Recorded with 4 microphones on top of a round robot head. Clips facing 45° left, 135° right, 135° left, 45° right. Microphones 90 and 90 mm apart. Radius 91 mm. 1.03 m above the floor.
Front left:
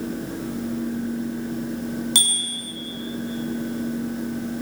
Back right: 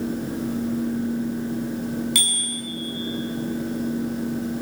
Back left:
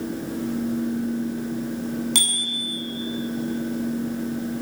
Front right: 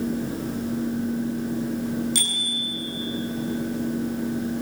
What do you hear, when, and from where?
2.1 s a bicycle bell: 105° left, 7.5 m